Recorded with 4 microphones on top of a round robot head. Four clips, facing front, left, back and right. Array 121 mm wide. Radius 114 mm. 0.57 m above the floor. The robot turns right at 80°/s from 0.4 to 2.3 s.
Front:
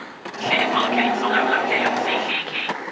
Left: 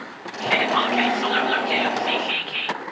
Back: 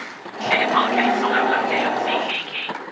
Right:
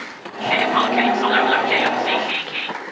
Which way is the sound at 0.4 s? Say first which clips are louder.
Right 3 dB, back 2 dB; 175° left.